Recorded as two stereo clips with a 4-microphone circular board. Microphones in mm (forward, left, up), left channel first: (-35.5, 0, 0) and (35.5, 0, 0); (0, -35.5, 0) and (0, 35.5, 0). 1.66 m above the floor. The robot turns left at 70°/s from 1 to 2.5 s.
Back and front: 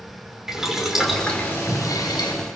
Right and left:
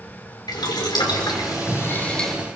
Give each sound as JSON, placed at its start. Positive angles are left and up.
{"t": 0.5, "sound": "boiling", "azimuth_deg": -85, "distance_m": 5.5}